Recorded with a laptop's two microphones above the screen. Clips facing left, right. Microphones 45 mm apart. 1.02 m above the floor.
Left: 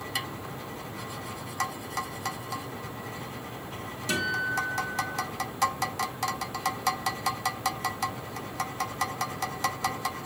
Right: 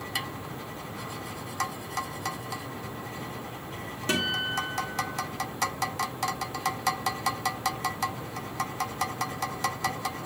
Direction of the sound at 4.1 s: 40° right (ahead or behind).